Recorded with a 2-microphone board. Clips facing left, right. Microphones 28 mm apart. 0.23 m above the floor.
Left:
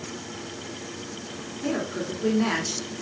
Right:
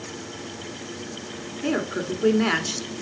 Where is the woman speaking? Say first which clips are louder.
Right 3 dB; 25° right (ahead or behind), 2 m.